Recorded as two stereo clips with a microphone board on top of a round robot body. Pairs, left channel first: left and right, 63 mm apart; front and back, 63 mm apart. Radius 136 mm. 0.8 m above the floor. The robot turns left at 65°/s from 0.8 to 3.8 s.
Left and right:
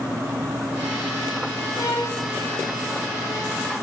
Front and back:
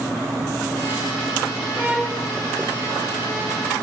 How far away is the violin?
About 3 m.